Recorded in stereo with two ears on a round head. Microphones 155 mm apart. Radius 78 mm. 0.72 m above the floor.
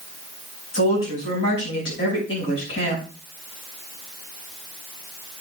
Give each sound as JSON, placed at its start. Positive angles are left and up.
{"t": 0.7, "sound": "a woman speaking", "side_deg": 75, "distance_m": 5.5}